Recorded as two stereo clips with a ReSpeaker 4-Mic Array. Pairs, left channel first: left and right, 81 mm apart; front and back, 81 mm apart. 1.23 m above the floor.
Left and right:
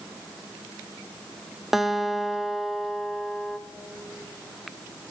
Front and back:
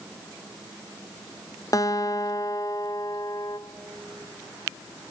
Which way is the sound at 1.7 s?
5° right.